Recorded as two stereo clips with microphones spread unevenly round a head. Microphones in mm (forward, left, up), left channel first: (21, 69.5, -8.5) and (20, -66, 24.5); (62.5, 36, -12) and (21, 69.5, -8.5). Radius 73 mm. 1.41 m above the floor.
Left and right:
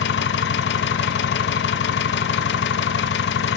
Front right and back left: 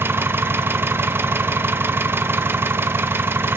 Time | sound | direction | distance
0.0 | an engine running | 105° left | 1.0 m